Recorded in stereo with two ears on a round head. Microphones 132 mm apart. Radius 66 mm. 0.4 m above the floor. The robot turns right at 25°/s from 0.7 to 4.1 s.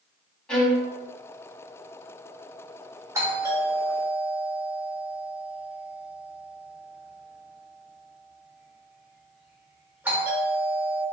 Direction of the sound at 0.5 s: 5° left (ahead or behind).